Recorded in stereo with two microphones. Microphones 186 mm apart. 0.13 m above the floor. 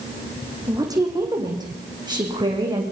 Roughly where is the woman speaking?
Centre.